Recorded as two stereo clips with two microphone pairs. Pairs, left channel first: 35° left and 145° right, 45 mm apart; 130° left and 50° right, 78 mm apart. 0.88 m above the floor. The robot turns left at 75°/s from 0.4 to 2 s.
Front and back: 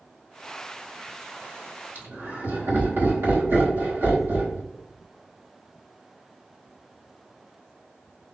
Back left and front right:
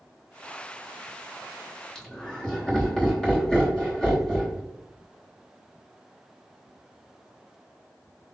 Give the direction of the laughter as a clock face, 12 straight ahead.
5 o'clock.